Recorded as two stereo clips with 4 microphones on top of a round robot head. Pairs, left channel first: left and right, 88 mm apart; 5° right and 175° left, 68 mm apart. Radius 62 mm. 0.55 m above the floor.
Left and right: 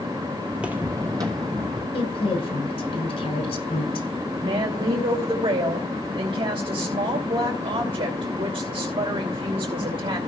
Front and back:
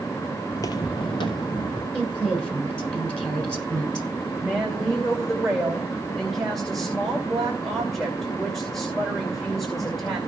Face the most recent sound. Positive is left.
turn(degrees=-90)